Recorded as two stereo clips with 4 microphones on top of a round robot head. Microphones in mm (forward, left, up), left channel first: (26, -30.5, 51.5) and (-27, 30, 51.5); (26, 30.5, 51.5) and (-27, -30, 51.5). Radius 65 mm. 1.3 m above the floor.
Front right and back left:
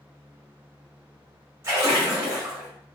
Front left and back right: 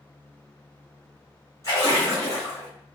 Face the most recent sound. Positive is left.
turn(degrees=90)